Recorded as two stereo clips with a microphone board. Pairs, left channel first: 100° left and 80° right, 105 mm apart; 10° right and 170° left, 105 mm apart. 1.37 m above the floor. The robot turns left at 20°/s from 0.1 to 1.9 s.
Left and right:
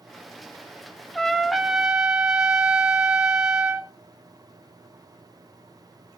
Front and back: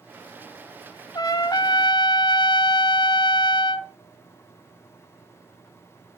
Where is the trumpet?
20° left, 0.6 m; by 3.9 s 5° left, 0.6 m.